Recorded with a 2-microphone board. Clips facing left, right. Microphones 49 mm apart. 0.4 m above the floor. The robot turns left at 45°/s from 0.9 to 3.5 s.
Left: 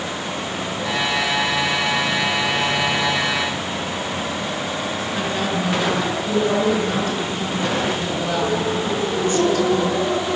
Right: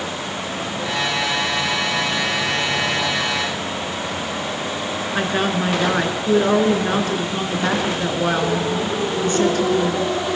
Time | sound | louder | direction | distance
5.2 | a woman speaking | right 4 dB | 40° right (ahead or behind) | 4.5 m